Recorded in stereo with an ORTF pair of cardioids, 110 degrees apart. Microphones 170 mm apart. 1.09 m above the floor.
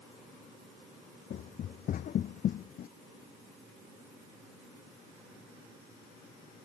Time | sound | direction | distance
1.3 | running footsteps | 55° left | ?